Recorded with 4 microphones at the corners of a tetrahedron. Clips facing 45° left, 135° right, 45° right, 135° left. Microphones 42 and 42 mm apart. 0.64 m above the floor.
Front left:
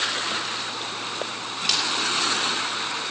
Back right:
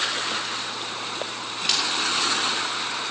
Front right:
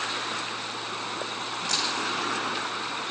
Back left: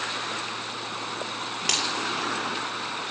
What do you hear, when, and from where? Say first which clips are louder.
1.7 s a dropped coin: even, back left 2 dB; 140° left, 6 m